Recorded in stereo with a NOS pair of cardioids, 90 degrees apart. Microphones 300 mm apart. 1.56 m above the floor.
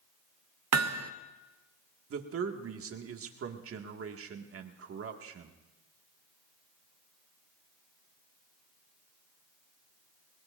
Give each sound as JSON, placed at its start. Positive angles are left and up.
{"t": 0.7, "sound": "hammering", "azimuth_deg": -65, "distance_m": 0.7}
{"t": 2.1, "sound": "a man speaking", "azimuth_deg": -50, "distance_m": 2.0}